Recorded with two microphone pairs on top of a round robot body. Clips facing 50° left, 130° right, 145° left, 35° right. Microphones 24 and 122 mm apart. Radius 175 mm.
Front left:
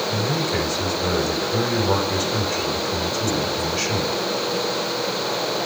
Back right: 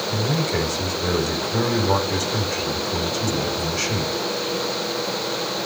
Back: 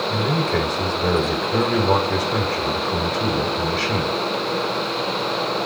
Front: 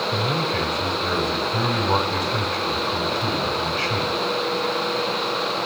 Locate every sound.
0.1 s a man speaking: 135° left, 5 m